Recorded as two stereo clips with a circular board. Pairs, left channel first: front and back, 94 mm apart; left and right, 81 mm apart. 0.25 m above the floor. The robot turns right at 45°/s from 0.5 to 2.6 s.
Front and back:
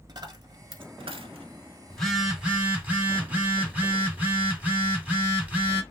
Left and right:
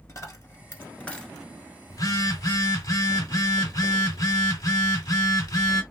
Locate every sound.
0.1 s a dropped coin: 140° left, 1.1 m; by 1.5 s straight behind, 1.1 m
1.9 s a phone buzzing: 80° left, 2 m; by 5.8 s 110° left, 2 m